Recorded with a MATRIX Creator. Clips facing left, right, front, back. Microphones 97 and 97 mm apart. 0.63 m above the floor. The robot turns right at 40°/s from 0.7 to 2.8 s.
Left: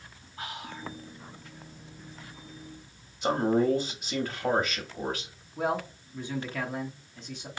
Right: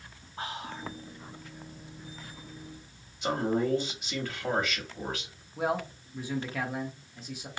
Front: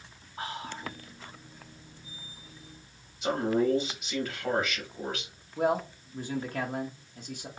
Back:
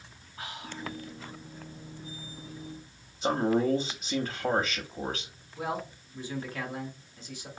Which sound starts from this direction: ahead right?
Whispering, at 0.4 s.